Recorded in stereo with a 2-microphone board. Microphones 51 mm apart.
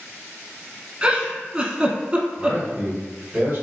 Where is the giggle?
20° right (ahead or behind), 0.6 m.